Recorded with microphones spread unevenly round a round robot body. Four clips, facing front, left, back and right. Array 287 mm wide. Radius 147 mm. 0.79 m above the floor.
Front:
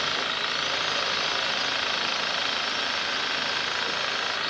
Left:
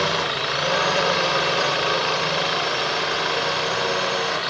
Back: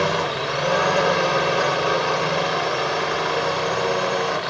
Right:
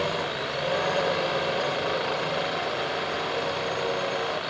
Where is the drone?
150° left.